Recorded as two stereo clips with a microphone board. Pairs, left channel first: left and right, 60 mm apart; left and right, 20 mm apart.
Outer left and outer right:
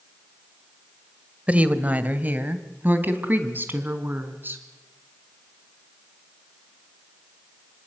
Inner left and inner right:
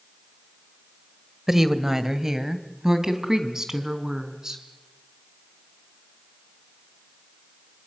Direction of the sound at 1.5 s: 25° right (ahead or behind).